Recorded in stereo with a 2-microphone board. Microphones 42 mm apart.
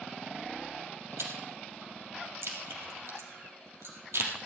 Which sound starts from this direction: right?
Chewing, at 1.2 s.